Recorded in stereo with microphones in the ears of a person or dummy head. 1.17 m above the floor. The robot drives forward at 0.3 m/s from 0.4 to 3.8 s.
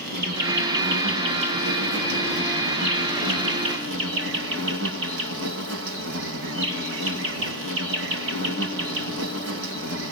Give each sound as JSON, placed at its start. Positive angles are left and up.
{"t": 0.0, "sound": "an insect", "side_deg": -60, "distance_m": 3.5}